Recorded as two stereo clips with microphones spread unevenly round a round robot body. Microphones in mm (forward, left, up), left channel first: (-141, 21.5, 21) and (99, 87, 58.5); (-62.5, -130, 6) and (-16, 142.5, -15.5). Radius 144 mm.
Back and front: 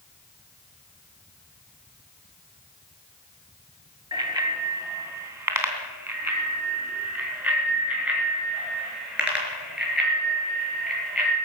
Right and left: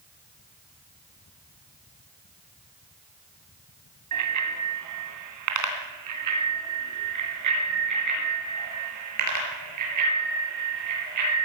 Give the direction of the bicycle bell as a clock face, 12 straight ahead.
9 o'clock.